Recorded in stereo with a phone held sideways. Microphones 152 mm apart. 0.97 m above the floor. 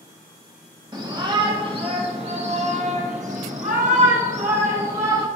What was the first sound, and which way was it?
A shout, 25° right (ahead or behind).